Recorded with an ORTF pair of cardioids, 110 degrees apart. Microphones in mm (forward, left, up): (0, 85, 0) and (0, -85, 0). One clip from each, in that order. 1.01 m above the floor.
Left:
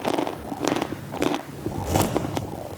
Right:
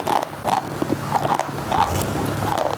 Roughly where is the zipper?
Ahead.